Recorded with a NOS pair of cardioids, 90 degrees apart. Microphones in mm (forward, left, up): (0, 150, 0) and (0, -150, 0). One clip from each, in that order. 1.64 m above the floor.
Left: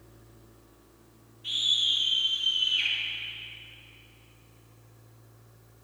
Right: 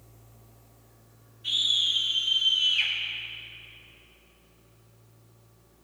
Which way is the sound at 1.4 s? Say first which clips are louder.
Right 1 dB; 10° right.